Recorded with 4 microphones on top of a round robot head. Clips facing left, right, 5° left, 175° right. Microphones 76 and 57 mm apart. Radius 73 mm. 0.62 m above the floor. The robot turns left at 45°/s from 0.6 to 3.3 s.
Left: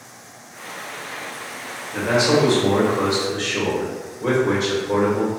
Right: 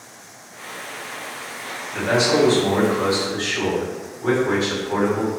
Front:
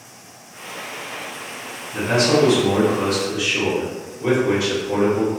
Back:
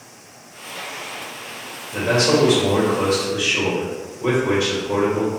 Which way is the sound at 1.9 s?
170° left.